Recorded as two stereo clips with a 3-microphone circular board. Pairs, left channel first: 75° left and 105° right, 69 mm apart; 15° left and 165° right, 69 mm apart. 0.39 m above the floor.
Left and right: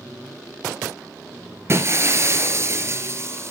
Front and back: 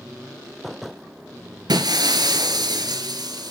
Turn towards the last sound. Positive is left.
turn(degrees=-155)